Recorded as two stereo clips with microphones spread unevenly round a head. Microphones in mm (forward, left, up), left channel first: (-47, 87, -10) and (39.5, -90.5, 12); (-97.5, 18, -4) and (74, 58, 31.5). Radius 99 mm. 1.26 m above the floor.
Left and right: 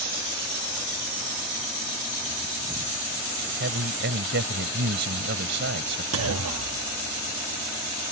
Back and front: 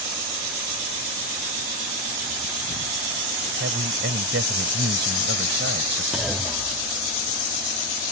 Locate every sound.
3.6 s a man speaking: 25° right
6.1 s a clunk: 70° right